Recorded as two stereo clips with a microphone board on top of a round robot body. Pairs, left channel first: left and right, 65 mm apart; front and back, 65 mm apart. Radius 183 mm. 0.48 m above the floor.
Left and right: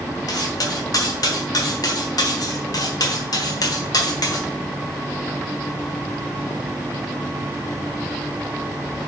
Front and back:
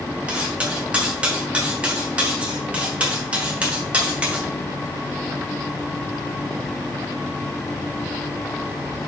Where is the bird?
I don't hear a bird.